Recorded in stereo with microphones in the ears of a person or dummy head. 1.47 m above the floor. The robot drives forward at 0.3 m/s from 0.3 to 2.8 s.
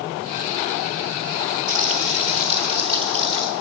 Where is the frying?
35° right (ahead or behind), 0.7 m; by 3.5 s 25° right (ahead or behind), 1.0 m.